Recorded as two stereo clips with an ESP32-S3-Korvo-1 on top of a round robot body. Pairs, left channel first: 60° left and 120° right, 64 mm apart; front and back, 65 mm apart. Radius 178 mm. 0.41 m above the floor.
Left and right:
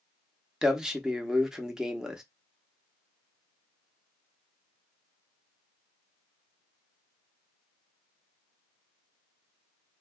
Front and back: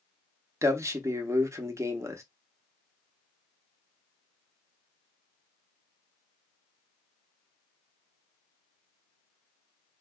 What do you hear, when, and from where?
0.6 s a man speaking: 160° left, 1.1 m